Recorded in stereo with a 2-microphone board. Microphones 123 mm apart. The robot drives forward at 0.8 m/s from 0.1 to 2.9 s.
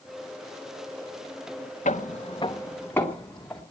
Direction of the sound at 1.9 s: 80° left.